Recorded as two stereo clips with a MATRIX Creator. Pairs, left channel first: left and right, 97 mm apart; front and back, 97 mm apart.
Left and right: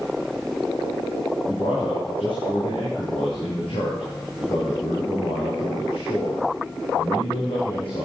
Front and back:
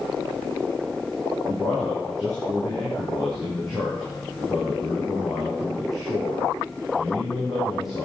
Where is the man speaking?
90° left, 5 m.